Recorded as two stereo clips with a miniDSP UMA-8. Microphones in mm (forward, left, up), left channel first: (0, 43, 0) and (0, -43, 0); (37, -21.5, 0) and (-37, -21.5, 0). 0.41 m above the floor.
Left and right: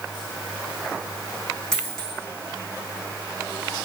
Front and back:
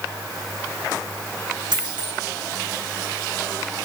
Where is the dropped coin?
175° left, 3 m.